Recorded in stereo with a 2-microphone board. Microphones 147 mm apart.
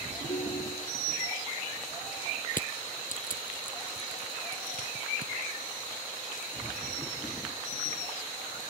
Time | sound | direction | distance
0.3 | a ringtone | 55° left (ahead or behind) | ?
2.5 | crushing | 65° left (ahead or behind) | ?